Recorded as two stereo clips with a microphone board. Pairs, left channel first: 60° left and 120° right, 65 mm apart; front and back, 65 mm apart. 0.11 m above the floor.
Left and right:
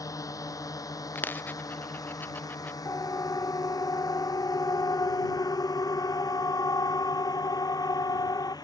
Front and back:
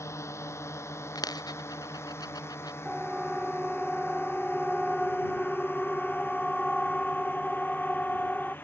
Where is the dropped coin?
Straight ahead.